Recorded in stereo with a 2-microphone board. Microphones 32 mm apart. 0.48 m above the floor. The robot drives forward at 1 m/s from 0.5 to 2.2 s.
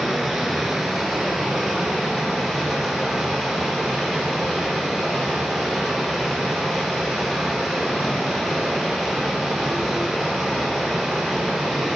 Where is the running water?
Centre (ahead or behind), 2 m.